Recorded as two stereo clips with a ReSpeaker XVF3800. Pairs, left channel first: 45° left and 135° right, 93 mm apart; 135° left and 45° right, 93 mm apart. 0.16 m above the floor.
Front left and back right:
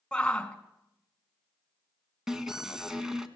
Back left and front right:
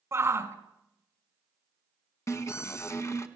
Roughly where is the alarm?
Behind left.